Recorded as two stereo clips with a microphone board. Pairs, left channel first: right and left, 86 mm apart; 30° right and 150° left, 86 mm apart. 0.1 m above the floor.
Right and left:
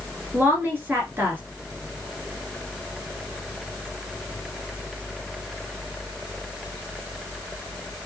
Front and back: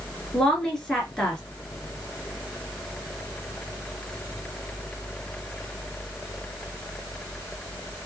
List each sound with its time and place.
0.3 s a woman speaking: 50° left, 2.0 m